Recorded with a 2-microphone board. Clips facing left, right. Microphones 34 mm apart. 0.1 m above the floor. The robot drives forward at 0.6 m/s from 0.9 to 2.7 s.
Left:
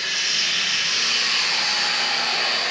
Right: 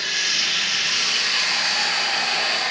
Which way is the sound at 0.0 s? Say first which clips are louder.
Right 1 dB; 75° right (ahead or behind).